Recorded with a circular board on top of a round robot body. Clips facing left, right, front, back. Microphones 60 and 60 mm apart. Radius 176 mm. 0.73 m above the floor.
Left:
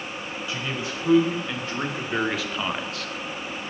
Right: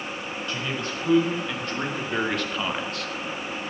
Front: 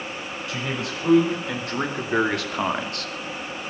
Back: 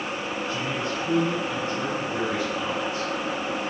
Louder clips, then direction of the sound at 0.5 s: Even, front 2 dB; 10° left.